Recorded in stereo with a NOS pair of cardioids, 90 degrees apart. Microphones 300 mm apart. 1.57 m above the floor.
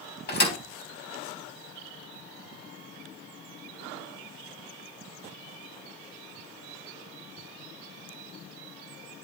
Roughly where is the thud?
Ahead left.